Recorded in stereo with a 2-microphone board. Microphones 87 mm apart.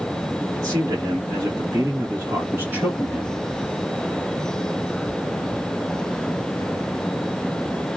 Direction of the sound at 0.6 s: 40° right (ahead or behind).